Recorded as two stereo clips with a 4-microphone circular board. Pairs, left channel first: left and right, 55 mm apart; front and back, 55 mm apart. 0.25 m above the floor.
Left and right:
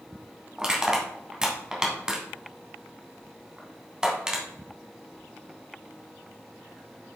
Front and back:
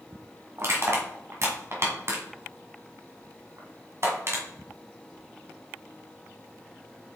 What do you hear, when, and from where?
0.6 s crushing: 160° right, 1.8 m